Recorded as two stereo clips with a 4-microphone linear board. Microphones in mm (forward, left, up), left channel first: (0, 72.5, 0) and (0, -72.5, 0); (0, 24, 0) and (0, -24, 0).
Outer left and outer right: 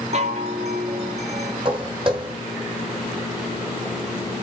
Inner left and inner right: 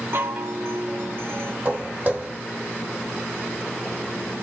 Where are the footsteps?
35° right (ahead or behind), 1.4 m.